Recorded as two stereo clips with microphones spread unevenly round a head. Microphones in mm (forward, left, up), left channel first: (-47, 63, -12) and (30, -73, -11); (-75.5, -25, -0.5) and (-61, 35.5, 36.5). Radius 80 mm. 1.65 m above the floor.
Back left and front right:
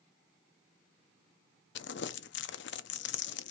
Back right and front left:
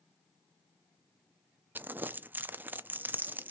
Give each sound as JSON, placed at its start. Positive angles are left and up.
{"t": 1.8, "sound": "crumpling", "azimuth_deg": 135, "distance_m": 0.5}